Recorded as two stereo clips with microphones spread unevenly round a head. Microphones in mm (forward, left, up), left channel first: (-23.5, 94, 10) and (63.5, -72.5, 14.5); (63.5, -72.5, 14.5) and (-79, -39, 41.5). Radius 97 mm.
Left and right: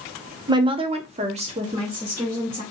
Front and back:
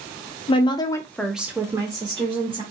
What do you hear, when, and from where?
0.5 s a woman speaking: straight ahead, 0.6 m; by 2.6 s 135° right, 1.0 m